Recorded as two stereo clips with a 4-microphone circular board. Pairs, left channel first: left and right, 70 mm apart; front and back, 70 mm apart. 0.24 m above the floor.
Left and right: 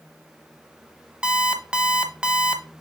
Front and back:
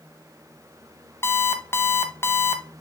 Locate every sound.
1.2 s an alarm clock: 25° right, 0.9 m